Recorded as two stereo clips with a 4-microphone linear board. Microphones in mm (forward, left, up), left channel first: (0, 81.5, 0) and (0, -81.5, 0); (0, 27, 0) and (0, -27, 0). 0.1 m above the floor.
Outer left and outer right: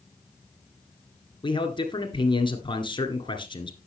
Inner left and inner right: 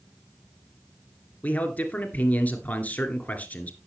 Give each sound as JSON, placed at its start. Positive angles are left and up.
{"t": 1.4, "sound": "a man speaking", "side_deg": 30, "distance_m": 1.7}